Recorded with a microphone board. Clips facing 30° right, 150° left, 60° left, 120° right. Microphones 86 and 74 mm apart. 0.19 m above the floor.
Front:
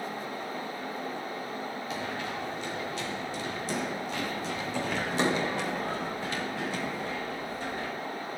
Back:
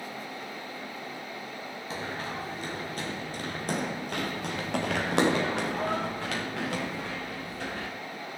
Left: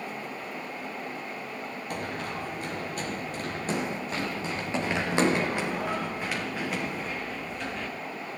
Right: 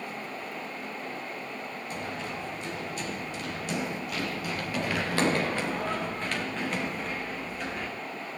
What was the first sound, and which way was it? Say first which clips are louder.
Running footsteps: back 2 dB, left 2 dB; 90° left.